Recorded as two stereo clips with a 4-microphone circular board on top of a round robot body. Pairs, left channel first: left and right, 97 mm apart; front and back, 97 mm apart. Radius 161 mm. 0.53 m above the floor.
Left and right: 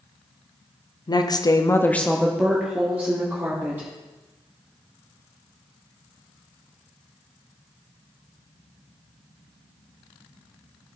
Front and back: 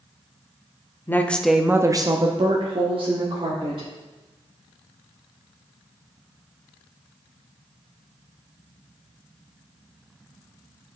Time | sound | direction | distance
1.1 | a woman speaking | 60° left | 1.3 m